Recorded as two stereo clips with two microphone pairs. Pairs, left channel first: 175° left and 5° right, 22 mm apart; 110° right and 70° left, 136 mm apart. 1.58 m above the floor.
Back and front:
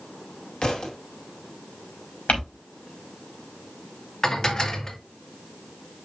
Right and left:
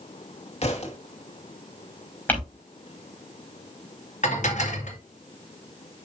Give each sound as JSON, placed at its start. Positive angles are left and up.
{"t": 0.6, "sound": "a thud", "azimuth_deg": -145, "distance_m": 2.0}
{"t": 2.3, "sound": "crumpling", "azimuth_deg": 175, "distance_m": 5.0}
{"t": 4.2, "sound": "dishes clattering", "azimuth_deg": -135, "distance_m": 1.9}